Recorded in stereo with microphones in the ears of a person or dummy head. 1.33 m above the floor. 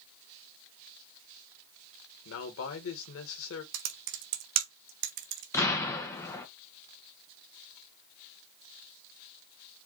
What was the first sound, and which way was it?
A man speaking, 80° left.